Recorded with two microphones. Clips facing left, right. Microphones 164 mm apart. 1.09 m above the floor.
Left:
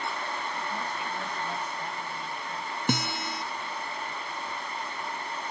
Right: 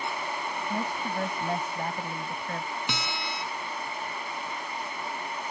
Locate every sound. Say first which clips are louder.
0.7 s a woman speaking: right 3 dB; 50° right (ahead or behind); by 2.8 s 60° right (ahead or behind)
2.9 s a guitar: left 4 dB; 50° left (ahead or behind)